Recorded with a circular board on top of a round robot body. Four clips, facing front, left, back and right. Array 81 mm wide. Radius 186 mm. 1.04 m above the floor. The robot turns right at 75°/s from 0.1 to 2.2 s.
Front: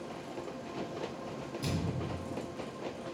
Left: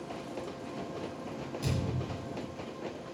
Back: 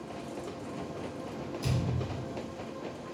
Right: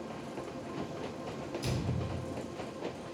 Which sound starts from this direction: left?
A thud, at 1.6 s.